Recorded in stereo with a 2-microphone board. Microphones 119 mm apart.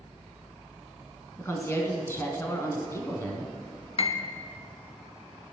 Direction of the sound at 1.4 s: 20° left (ahead or behind).